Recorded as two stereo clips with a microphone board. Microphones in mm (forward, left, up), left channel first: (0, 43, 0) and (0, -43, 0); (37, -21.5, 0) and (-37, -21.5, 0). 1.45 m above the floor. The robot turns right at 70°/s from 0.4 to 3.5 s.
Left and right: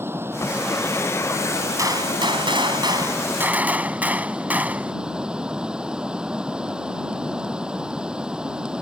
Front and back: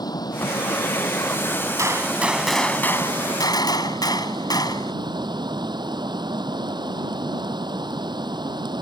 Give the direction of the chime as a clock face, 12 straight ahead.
No chime in this recording.